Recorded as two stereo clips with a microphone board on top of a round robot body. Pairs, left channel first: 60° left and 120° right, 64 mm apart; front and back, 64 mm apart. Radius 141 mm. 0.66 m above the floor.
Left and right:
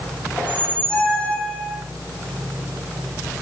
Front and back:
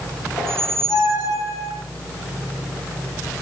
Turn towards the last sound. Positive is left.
turn(degrees=-15)